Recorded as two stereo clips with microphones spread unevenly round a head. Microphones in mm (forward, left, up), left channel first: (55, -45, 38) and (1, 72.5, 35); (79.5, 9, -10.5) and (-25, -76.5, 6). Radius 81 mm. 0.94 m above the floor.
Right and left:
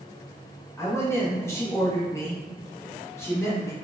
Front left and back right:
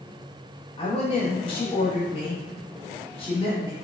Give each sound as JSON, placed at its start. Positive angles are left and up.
{"t": 0.8, "sound": "a woman speaking", "azimuth_deg": 0, "distance_m": 1.3}